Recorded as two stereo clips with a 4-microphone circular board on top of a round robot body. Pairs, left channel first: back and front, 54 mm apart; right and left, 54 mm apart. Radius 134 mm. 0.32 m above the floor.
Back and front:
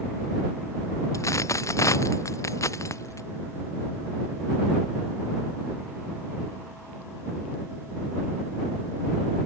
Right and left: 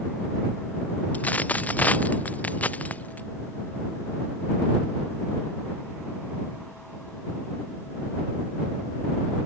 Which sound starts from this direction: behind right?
A dropped coin, at 1.1 s.